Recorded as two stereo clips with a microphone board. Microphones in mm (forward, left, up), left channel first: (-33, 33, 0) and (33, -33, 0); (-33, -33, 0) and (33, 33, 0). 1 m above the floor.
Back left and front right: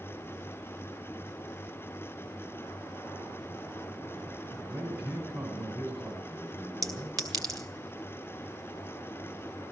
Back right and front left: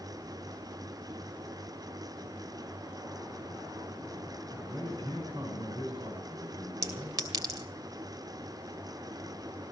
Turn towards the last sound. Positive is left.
turn(degrees=0)